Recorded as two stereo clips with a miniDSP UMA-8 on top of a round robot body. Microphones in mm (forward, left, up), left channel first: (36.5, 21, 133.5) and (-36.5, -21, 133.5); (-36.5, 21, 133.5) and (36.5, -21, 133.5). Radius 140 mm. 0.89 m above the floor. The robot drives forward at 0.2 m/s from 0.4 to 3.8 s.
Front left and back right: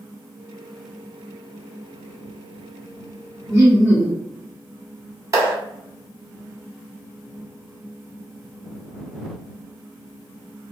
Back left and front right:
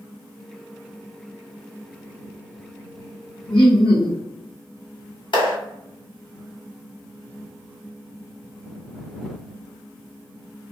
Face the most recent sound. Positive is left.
turn(degrees=160)